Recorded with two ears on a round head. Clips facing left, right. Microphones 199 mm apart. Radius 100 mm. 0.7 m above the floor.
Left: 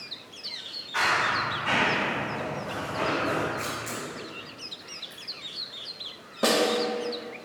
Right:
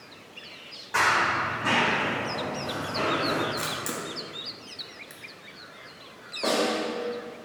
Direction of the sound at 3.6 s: 55° right (ahead or behind).